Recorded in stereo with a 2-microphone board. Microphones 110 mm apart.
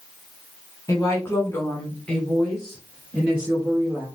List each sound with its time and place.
0.9 s a woman speaking: 30° left (ahead or behind), 1.3 m; by 4.0 s 15° right (ahead or behind), 2.5 m